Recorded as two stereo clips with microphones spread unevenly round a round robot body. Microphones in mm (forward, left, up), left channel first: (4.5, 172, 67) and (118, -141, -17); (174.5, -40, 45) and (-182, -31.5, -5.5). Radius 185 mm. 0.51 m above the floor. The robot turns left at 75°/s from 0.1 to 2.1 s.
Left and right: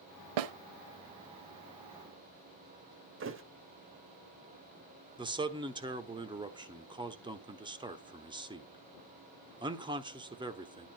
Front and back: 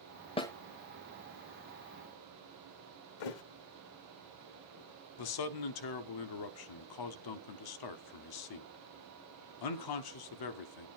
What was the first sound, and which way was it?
A snare drum, 75° right.